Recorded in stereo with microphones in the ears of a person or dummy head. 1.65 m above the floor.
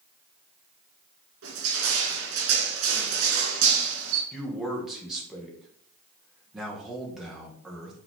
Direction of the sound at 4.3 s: 5° right (ahead or behind).